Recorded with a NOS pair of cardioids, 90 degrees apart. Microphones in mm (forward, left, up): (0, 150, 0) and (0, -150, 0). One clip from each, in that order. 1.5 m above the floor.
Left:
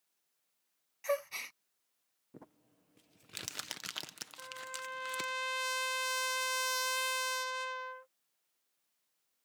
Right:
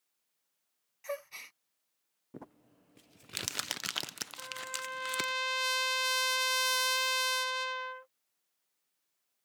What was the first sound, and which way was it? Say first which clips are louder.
A gasp: left 5 dB; 20° left.